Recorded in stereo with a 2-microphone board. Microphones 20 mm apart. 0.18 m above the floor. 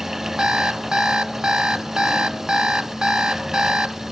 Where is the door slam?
No door slam in this recording.